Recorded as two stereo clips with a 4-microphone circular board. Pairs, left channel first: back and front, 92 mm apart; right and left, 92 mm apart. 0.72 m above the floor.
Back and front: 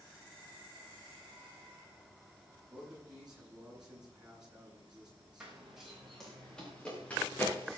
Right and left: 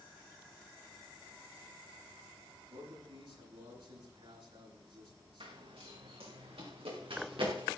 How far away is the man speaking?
About 9 m.